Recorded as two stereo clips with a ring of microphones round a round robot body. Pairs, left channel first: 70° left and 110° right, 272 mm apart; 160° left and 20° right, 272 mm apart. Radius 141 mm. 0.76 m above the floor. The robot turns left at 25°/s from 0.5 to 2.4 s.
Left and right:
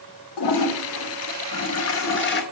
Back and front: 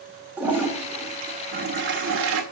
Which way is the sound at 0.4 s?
60° left.